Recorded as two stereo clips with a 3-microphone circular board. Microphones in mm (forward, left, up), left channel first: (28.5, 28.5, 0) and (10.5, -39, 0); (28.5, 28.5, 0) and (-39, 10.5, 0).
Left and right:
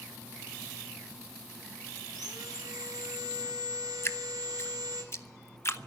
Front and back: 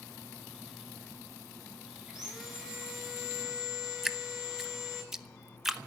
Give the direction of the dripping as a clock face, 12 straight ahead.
8 o'clock.